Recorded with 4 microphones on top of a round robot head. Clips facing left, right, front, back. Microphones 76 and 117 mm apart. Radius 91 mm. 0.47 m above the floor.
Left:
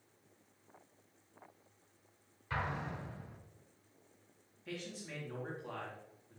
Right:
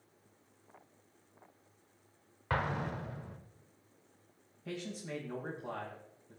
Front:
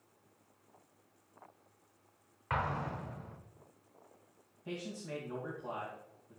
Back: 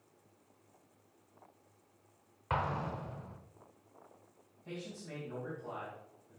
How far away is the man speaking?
About 3 m.